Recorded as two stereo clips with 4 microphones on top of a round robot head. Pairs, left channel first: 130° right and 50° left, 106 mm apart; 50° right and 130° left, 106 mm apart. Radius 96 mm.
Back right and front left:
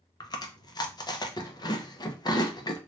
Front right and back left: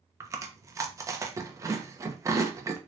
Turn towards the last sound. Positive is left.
turn(degrees=-175)